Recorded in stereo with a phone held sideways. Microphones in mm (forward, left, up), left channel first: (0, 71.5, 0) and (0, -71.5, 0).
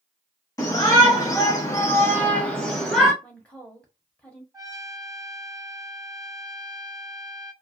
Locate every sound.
0.6 s a shout: 25° left (ahead or behind), 1.4 m; by 3.1 s centre (ahead or behind), 0.9 m
3.2 s a woman speaking: 10° left (ahead or behind), 1.1 m
4.5 s a trumpet: 25° right (ahead or behind), 0.5 m